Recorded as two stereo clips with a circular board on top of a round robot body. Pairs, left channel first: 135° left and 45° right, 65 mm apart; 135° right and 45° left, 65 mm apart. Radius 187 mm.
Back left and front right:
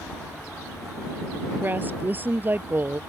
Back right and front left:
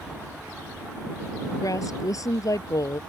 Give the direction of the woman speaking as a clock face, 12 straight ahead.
4 o'clock.